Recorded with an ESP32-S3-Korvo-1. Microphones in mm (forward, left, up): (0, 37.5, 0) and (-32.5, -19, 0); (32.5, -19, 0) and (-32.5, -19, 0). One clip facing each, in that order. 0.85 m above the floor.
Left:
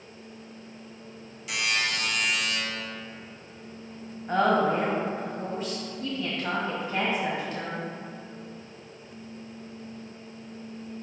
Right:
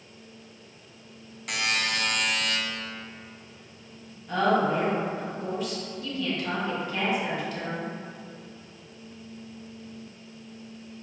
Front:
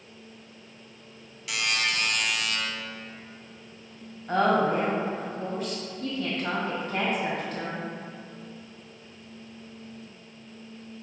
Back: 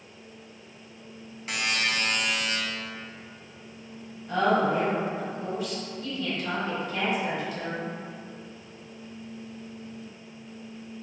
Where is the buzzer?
135° right, 0.6 m.